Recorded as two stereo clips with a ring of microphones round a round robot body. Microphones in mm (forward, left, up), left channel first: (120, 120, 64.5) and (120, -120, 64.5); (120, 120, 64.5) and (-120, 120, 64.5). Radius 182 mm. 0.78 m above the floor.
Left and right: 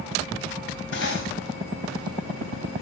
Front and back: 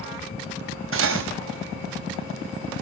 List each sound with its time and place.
0.9 s cutlery clinking: 145° left, 3.5 m